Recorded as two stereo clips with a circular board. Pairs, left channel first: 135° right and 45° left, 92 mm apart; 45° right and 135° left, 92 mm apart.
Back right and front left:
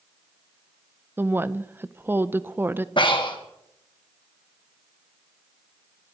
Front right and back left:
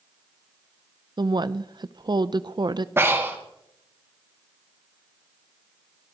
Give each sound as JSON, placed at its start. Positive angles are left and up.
{"t": 1.2, "sound": "a woman speaking", "azimuth_deg": 110, "distance_m": 0.5}
{"t": 3.0, "sound": "breathing", "azimuth_deg": -160, "distance_m": 1.8}